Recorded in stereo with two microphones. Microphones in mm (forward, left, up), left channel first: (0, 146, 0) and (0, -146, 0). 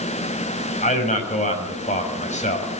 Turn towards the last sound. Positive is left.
turn(degrees=25)  # may be behind; listen again after turning